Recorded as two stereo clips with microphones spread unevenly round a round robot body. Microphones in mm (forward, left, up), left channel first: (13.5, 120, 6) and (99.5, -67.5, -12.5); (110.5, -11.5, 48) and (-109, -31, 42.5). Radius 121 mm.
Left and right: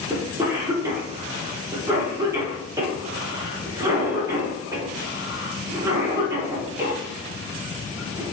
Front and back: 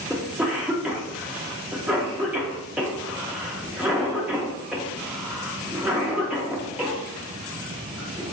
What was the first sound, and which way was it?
A cough, 100° right.